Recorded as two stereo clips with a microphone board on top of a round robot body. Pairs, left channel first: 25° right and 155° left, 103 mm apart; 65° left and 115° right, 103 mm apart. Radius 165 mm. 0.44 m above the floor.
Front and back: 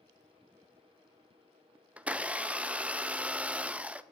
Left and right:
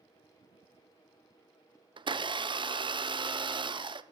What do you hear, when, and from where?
2.0 s a blender: 130° right, 0.8 m